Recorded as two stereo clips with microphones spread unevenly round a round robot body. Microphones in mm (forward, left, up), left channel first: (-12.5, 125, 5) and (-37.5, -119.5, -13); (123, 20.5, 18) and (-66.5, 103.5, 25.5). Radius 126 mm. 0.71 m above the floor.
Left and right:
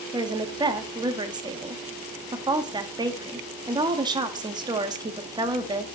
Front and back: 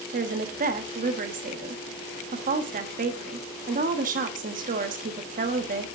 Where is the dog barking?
I don't hear a dog barking.